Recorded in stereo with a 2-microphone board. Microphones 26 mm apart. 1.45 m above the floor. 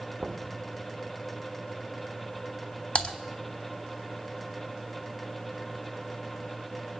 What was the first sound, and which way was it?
Knocking, 35° right (ahead or behind).